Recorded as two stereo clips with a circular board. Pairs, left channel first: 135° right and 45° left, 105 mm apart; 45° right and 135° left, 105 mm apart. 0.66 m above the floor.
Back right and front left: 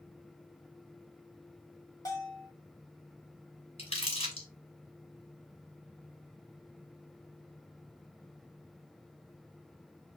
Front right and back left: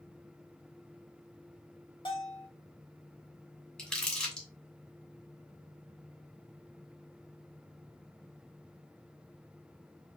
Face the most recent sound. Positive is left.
turn(degrees=-125)